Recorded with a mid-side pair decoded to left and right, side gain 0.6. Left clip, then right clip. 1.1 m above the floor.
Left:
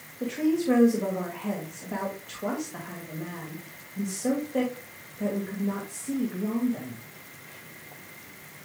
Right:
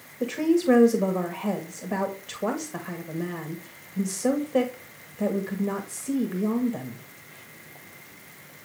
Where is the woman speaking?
35° right, 1.7 m.